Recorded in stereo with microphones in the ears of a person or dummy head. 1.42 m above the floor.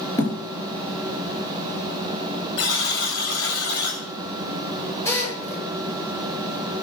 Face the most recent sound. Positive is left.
turn(degrees=20)  # may be behind; listen again after turning